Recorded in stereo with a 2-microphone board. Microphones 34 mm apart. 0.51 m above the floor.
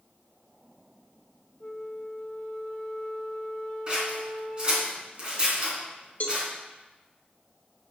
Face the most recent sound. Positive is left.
turn(degrees=55)  # may be behind; listen again after turning